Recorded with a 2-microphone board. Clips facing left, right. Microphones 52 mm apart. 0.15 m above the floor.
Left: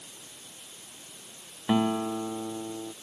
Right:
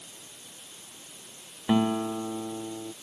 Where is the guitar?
Centre (ahead or behind).